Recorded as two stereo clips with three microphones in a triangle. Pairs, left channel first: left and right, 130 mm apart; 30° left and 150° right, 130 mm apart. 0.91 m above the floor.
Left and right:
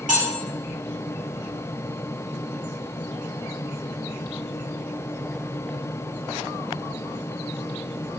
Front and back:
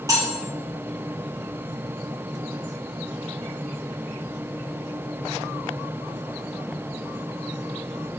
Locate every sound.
0.1 s cutlery clinking: 85° right, 1.6 m